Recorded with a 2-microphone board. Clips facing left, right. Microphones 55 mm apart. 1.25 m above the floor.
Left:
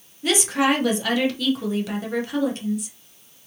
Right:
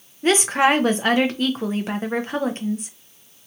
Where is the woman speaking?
35° right (ahead or behind), 0.8 m.